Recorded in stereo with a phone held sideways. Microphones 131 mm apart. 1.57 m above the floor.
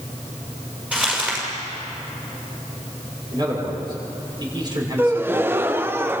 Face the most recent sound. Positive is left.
turn(degrees=-15)  # may be behind; listen again after turning